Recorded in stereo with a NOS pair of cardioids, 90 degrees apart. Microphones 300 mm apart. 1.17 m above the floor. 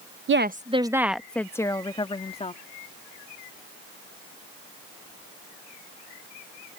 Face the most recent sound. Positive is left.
turn(degrees=20)